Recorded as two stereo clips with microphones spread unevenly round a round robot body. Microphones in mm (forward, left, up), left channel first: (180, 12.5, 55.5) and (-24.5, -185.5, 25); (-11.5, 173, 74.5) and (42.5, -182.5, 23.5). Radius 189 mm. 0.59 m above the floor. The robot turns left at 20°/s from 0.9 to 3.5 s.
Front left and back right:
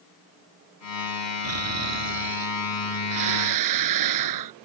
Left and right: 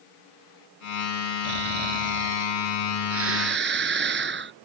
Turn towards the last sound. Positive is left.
turn(degrees=-145)